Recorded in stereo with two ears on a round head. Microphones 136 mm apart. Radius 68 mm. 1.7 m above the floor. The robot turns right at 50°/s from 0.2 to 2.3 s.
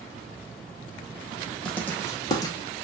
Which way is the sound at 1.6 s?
5° left (ahead or behind).